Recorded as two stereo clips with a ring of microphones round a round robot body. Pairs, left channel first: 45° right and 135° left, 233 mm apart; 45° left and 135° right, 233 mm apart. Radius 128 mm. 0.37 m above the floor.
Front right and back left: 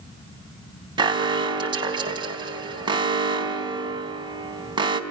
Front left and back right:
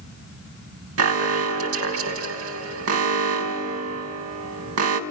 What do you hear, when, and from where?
1.0 s an alarm: 155° right, 4 m